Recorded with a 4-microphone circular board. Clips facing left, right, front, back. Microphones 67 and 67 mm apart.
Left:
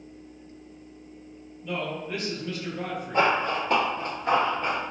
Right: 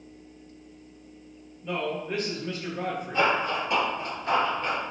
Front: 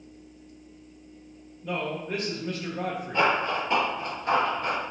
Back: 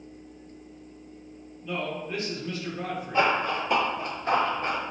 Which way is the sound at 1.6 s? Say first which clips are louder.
Right 2 dB, front 1 dB; 30° right.